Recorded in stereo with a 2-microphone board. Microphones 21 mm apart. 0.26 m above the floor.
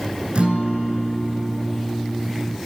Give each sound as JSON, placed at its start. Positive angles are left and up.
{"t": 0.3, "sound": "a guitar", "side_deg": -65, "distance_m": 3.5}